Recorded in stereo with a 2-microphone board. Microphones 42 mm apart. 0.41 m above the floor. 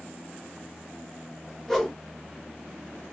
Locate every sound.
1.7 s a whoosh: 5° left (ahead or behind), 1.6 m